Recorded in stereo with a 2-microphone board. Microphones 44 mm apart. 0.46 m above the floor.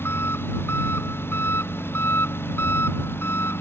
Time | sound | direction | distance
0.0 | an engine running | 60° left (ahead or behind) | ?